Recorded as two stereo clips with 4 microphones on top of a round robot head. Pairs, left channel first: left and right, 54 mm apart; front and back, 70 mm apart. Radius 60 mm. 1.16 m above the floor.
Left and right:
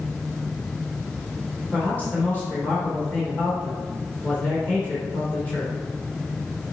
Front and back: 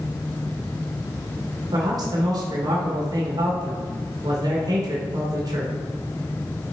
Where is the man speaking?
155° left, 1.9 m.